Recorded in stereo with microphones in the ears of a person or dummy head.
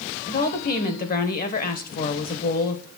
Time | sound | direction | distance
0.3 | a woman speaking | 45° left (ahead or behind) | 1.2 m